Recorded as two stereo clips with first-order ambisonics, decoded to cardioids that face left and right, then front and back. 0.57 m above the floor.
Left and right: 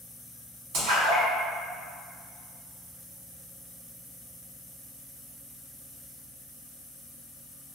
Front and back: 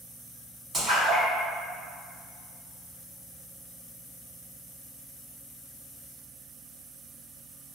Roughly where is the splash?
Right.